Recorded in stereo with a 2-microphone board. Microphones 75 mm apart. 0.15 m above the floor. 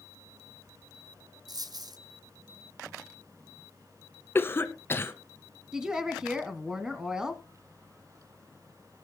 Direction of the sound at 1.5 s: 60° right (ahead or behind).